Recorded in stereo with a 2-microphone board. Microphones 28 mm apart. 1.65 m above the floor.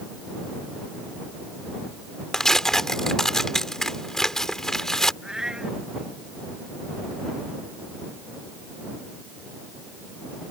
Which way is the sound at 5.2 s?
20° right (ahead or behind).